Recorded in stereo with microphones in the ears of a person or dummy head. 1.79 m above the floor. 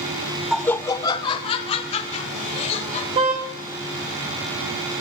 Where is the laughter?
Centre (ahead or behind), 0.6 m; by 3.0 s 40° left (ahead or behind), 2.5 m.